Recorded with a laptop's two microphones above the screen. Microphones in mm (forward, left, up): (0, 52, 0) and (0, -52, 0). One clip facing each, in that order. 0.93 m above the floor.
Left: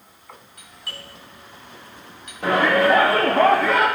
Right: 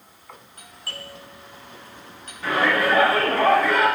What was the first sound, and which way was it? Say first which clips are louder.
A doorbell: right 2 dB; 40° right (ahead or behind).